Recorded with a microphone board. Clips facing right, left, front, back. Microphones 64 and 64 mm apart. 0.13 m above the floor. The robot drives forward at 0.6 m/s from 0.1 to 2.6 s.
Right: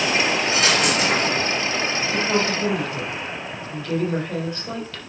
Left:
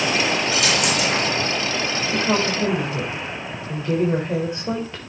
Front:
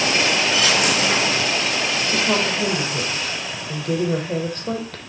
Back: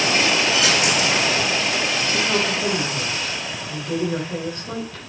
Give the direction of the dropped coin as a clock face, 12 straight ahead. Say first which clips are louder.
Right 1 dB, even; 1 o'clock.